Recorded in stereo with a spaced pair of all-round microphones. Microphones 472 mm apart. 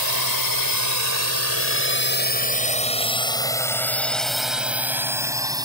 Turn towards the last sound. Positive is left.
turn(degrees=-10)  # may be behind; listen again after turning